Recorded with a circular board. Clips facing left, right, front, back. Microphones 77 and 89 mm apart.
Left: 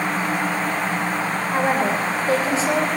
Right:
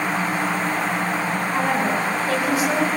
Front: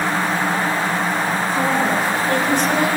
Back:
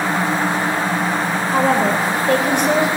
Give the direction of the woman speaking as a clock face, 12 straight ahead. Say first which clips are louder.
Left 2 dB, back 4 dB; 7 o'clock.